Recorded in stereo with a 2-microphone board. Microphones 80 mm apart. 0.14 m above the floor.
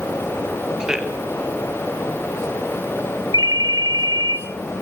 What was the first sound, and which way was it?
A man speaking, 10° right (ahead or behind).